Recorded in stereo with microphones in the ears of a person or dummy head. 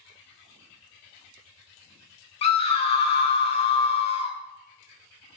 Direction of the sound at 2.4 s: 35° left (ahead or behind).